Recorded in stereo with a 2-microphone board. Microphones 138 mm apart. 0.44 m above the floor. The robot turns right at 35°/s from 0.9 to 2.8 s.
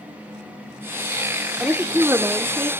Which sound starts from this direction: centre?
A woman speaking, at 1.6 s.